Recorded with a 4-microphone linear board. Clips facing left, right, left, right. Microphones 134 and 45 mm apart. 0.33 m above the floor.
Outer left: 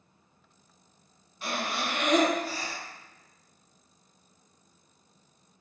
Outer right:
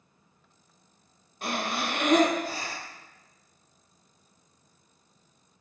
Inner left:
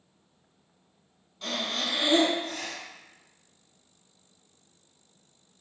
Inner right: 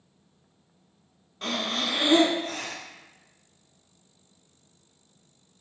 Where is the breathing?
50° right (ahead or behind), 0.5 m.